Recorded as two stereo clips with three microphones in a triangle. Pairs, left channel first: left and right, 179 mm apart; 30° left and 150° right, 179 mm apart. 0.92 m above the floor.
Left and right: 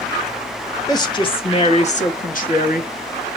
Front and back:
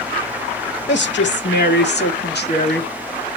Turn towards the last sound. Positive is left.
turn(degrees=55)